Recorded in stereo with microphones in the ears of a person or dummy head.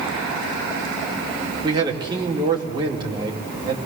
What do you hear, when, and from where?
1.6 s a man speaking: 20° right (ahead or behind), 4 m